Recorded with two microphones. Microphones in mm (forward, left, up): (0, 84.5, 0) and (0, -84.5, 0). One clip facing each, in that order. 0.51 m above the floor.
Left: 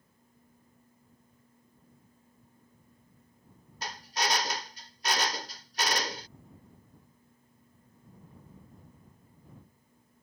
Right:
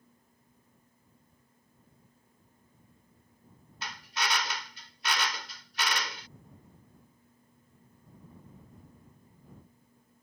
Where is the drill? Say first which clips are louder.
Left 3 dB; 40° left (ahead or behind).